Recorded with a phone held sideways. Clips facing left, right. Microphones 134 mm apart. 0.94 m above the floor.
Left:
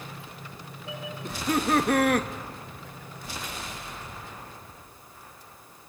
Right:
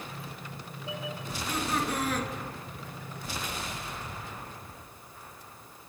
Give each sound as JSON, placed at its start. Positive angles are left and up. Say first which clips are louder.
{"t": 1.2, "sound": "laughter", "louder": "left 9 dB", "side_deg": 65, "distance_m": 0.9}